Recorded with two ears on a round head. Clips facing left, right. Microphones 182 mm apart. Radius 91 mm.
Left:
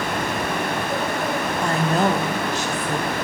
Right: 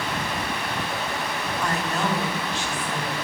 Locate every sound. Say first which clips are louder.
1.6 s a woman speaking: left 6 dB; 20° left (ahead or behind), 1.3 m; by 3.1 s 30° left (ahead or behind), 2.0 m